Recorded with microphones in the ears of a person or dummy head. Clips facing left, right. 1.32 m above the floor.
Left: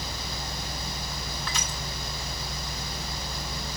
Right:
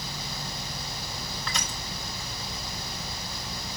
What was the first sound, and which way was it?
Crushing, 5° left (ahead or behind).